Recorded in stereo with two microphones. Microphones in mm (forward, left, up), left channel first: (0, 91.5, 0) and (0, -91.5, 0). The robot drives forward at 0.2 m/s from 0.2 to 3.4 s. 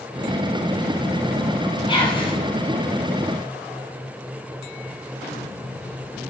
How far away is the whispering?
About 0.7 m.